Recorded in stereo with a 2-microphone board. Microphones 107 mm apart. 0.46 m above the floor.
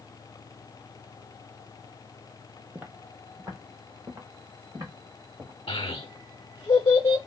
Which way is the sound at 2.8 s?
15° right (ahead or behind).